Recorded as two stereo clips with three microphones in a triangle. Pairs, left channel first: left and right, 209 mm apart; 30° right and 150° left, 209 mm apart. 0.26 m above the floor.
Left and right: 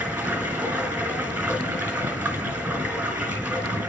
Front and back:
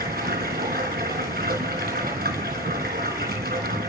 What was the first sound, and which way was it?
Running water, 170° right.